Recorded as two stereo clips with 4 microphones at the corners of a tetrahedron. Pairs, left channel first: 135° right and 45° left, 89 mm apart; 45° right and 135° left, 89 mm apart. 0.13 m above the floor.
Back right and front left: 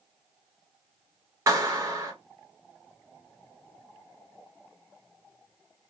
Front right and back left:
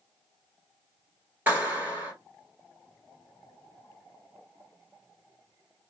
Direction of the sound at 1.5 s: 80° left.